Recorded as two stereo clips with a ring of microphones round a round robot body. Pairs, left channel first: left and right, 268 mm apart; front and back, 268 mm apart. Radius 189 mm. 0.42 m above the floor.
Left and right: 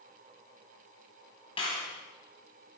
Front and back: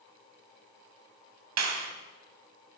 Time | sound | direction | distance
1.6 | a clap | 165° left | 2 m